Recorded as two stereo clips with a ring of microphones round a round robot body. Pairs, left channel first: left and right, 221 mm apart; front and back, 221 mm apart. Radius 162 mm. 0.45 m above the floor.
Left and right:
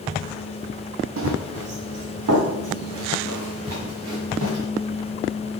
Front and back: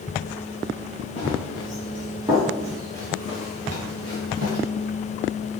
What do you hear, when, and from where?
1.2 s running footsteps: 70° right, 1.2 m; by 4.6 s 115° right, 3.5 m